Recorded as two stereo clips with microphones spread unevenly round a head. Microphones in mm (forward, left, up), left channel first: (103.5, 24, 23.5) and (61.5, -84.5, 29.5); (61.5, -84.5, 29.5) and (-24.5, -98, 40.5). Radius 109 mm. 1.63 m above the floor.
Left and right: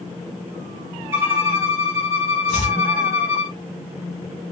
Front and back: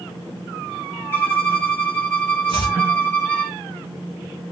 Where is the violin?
55° right, 1.7 m.